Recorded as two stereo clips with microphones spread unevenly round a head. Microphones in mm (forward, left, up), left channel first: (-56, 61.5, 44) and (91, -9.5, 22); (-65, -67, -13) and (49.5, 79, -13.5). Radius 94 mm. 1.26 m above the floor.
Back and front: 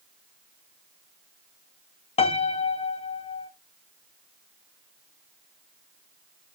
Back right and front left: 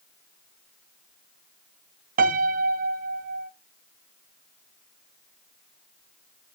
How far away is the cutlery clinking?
I don't hear cutlery clinking.